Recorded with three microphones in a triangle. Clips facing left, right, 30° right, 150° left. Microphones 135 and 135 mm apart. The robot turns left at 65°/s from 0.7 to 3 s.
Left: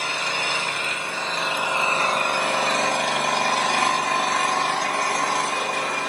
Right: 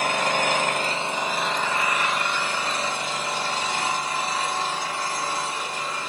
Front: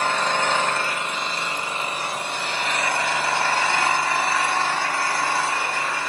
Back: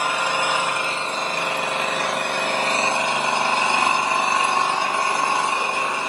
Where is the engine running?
130° right, 2.5 m; by 6.1 s 80° left, 2.5 m.